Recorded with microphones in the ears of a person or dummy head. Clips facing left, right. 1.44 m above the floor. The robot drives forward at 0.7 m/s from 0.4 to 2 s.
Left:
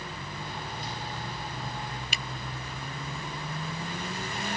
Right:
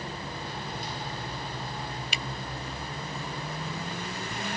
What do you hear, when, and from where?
2.1 s a finger snap: 40° left (ahead or behind)